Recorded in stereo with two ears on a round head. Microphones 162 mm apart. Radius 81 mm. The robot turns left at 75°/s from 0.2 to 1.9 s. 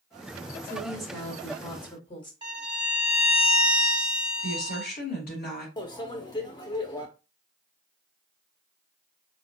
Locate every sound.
0.6 s a woman speaking: 150° right, 1.3 m; by 2.3 s 115° left, 1.3 m
2.4 s a violin: 25° right (ahead or behind), 1.1 m
4.4 s a woman speaking: 60° left (ahead or behind), 2.5 m
5.8 s a microwave: 25° left (ahead or behind), 0.7 m